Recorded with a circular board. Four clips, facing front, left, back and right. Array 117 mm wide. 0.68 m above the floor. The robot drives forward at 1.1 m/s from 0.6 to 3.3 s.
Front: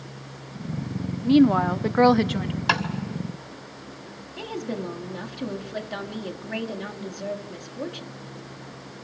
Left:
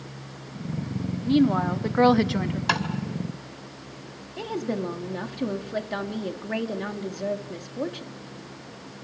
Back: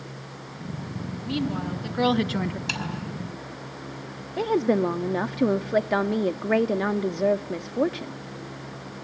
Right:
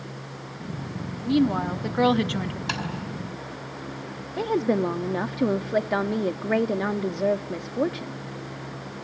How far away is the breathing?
No breathing in this recording.